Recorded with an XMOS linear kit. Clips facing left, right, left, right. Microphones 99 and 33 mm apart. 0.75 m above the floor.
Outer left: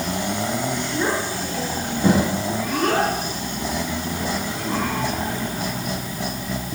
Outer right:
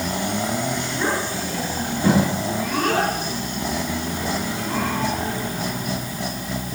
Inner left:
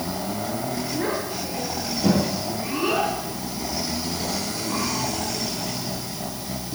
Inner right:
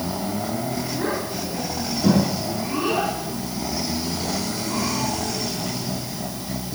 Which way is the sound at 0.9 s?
15° left (ahead or behind).